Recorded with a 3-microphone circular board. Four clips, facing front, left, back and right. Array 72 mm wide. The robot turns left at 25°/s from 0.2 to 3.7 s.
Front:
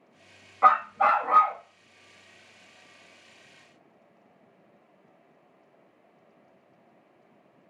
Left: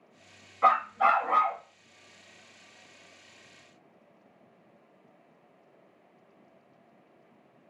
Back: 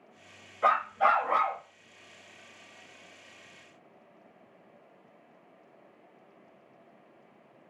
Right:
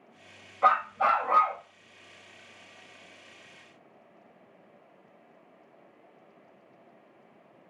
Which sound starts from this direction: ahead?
A dog barking, at 0.6 s.